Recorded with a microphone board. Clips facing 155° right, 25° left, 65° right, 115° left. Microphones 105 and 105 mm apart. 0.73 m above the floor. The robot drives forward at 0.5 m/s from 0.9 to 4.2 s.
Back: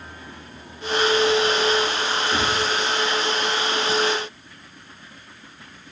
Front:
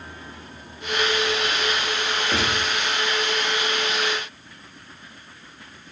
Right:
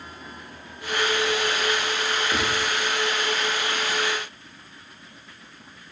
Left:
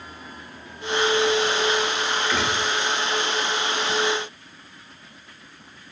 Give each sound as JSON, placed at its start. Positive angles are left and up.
{"t": 2.3, "sound": "a gunshot", "azimuth_deg": 15, "distance_m": 3.5}